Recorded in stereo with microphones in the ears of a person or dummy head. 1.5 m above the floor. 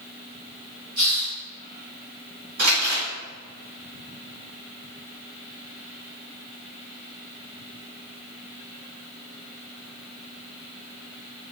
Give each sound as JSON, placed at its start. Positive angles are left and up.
{"t": 1.0, "sound": "a hiss", "side_deg": -50, "distance_m": 1.9}
{"t": 2.6, "sound": "crumpling", "side_deg": -50, "distance_m": 2.0}